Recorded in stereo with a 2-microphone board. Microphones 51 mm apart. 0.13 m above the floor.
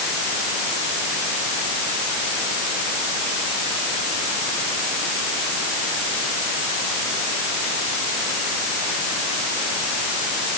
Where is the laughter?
No laughter in this recording.